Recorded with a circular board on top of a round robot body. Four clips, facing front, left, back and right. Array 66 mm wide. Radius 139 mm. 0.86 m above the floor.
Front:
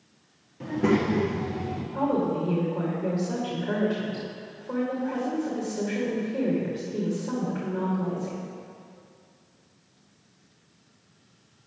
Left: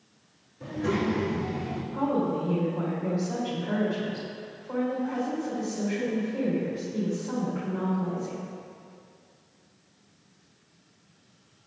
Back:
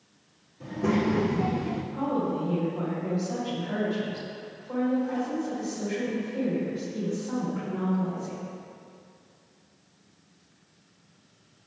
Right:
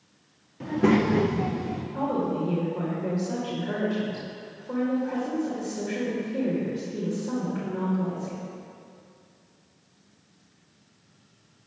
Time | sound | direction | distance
0.6 | a child speaking | 60° right | 1.2 m
1.9 | a woman speaking | 30° right | 2.5 m